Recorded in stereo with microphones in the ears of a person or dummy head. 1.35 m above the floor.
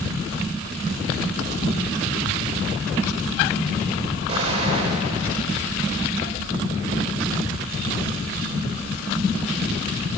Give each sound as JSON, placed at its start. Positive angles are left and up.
{"t": 4.3, "sound": "an explosion", "side_deg": -30, "distance_m": 4.5}